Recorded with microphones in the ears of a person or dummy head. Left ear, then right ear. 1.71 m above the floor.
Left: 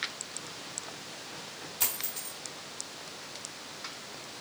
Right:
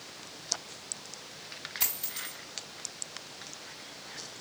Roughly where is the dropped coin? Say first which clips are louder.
Left 1 dB; centre.